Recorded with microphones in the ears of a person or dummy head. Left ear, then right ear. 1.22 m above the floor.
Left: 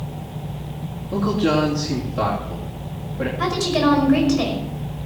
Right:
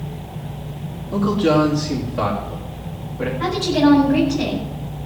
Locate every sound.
1.1 s a man speaking: 10° left (ahead or behind), 3 m
3.4 s a woman speaking: 55° left (ahead or behind), 5 m